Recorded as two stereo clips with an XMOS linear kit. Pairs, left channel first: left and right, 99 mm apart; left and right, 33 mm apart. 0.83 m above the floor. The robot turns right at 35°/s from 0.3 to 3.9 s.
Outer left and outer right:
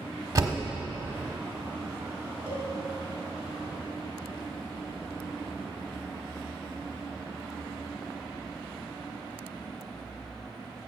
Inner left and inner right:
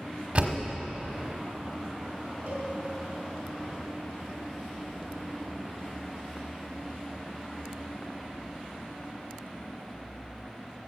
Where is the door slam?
35° right (ahead or behind), 1.2 m; by 0.6 s 25° right (ahead or behind), 1.2 m.